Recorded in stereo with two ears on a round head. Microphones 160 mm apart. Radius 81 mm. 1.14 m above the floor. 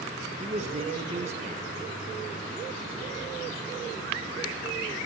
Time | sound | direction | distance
0.4 | a man speaking | 40° right (ahead or behind) | 1.2 m